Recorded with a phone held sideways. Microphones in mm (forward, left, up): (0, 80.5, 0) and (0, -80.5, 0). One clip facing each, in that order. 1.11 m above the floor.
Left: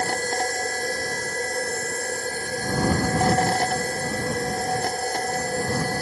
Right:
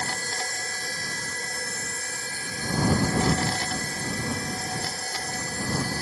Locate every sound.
0.0 s a machine running: 50° left (ahead or behind)